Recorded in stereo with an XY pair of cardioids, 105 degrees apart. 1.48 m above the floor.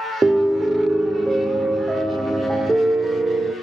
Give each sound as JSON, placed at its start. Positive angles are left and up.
{"t": 0.2, "sound": "a piano", "azimuth_deg": -25, "distance_m": 0.5}